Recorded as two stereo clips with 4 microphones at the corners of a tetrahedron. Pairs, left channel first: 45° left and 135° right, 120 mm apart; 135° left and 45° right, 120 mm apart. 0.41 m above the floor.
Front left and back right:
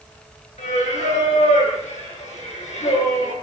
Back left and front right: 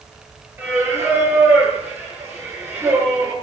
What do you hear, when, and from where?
0.6 s singing: 25° left, 6 m